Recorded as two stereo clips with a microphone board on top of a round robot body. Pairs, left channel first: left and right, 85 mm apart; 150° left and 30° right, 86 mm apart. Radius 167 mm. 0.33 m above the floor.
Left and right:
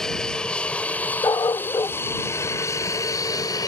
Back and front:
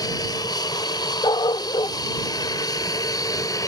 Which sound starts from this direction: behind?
An aircraft, at 0.0 s.